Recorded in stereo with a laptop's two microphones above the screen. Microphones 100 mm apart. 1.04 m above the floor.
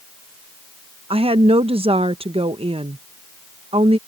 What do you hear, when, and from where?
1.1 s a woman speaking: 75° right (ahead or behind)